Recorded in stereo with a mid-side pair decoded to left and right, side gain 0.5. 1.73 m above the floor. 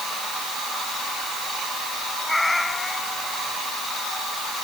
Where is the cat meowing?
15° left.